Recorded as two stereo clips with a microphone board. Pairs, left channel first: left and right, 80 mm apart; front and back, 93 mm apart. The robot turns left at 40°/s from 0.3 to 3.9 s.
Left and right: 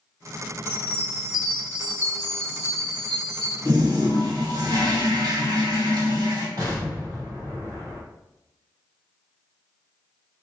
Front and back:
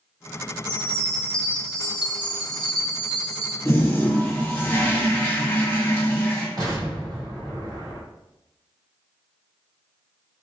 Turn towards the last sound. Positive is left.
turn(degrees=-130)